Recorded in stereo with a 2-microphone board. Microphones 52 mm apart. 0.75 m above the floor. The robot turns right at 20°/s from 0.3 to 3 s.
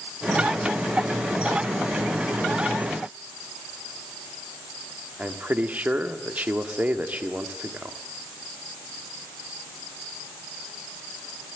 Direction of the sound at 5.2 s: 35° right (ahead or behind).